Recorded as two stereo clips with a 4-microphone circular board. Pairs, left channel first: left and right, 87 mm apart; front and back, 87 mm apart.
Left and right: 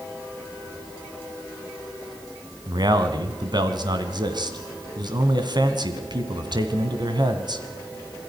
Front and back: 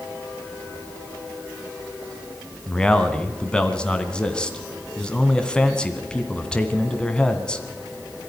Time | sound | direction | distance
2.7 | a man speaking | 75° right | 1.9 m